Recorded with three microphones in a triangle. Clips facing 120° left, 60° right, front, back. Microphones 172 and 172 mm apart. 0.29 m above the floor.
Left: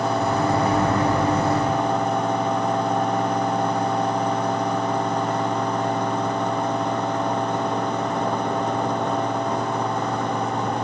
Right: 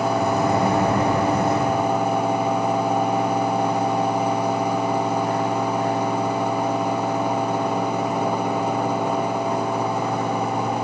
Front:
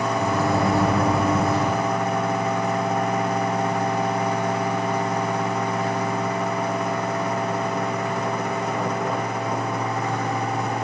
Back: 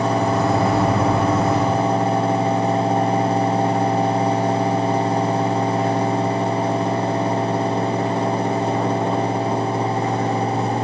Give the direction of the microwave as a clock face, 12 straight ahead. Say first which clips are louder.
Right 1 dB, back 1 dB; 3 o'clock.